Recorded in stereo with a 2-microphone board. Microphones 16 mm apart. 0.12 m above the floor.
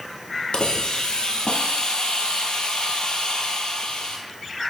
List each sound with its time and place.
0.5 s a hiss: 65° left (ahead or behind), 1.1 m